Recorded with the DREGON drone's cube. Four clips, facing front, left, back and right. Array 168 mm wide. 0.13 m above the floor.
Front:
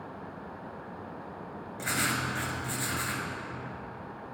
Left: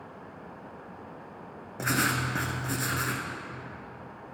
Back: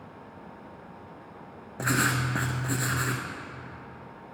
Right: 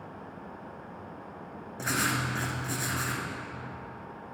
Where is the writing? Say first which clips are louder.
Left 2 dB, back 5 dB; 155° left, 1.0 m.